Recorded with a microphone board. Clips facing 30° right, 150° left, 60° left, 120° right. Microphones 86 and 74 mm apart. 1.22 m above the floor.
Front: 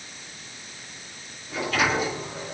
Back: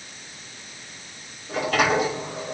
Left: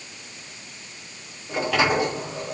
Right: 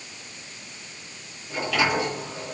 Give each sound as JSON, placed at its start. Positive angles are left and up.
{"t": 1.5, "sound": "a sliding door", "azimuth_deg": 120, "distance_m": 6.5}